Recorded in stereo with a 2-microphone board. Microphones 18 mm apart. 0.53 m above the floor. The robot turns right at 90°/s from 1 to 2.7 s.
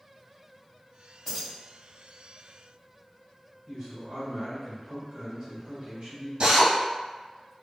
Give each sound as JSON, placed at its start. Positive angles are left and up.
{"t": 1.2, "sound": "keys jangling", "side_deg": 25, "distance_m": 1.5}
{"t": 3.6, "sound": "a man speaking", "side_deg": -40, "distance_m": 1.7}
{"t": 6.4, "sound": "a drill", "side_deg": -60, "distance_m": 1.1}